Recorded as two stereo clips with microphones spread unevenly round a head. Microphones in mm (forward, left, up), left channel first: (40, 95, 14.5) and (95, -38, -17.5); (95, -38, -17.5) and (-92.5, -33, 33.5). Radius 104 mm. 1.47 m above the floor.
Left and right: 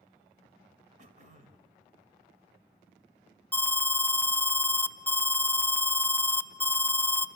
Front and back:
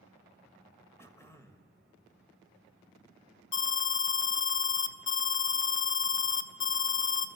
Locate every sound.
1.0 s throat clearing: 90° right, 1.5 m
3.5 s an alarm: 35° left, 0.7 m